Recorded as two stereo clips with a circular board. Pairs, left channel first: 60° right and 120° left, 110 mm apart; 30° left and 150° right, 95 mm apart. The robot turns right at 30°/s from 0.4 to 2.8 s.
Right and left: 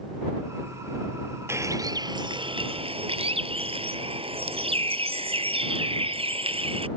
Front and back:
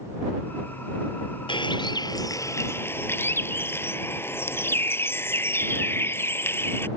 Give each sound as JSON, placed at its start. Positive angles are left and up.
{"t": 1.5, "sound": "a bird", "azimuth_deg": 55}